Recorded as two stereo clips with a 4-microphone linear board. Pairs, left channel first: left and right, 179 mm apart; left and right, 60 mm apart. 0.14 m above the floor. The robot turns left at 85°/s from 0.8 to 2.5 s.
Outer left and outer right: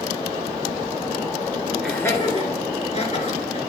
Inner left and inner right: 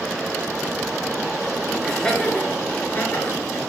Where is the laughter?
Centre (ahead or behind), 1.9 m; by 3.6 s 40° left (ahead or behind), 1.9 m.